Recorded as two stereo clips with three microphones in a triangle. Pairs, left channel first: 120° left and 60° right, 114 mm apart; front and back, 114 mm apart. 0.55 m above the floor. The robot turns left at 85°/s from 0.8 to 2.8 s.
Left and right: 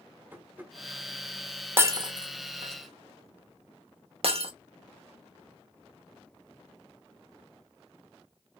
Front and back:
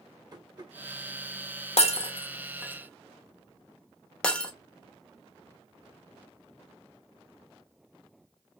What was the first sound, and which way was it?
Tapping, 135° right.